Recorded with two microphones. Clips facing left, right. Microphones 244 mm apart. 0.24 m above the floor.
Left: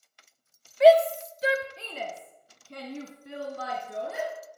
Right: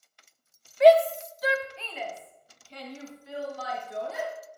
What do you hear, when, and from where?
0.8 s a shout: centre (ahead or behind), 1.1 m; by 4.3 s 60° left (ahead or behind), 3.5 m